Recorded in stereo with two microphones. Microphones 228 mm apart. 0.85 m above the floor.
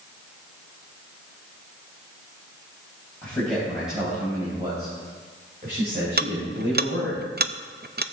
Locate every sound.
3.2 s a man speaking: 10° left (ahead or behind), 4.5 m; by 7.2 s 65° right (ahead or behind), 5 m
6.2 s ticking: 45° right (ahead or behind), 0.5 m